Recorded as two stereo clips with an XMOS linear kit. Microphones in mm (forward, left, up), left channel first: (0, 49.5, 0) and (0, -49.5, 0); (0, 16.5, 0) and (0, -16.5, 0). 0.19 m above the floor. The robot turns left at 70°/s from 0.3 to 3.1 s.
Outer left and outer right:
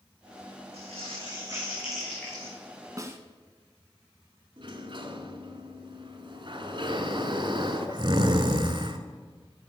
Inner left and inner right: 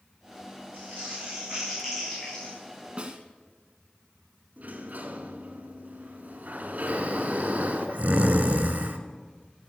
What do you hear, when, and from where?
0.7 s crumpling: 95° right, 6.5 m; by 2.5 s 140° left, 6.5 m
3.0 s a snare drum: 35° right (ahead or behind), 1.3 m; by 3.2 s 30° right (ahead or behind), 1.3 m
4.6 s a sliding door: 55° right (ahead or behind), 1.4 m
6.9 s snoring: 55° right (ahead or behind), 1.1 m